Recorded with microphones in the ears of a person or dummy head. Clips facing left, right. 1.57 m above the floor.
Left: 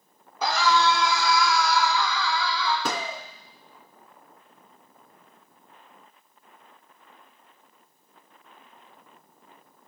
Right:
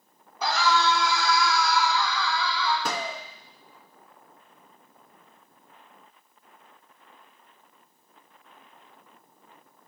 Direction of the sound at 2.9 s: 75° left (ahead or behind).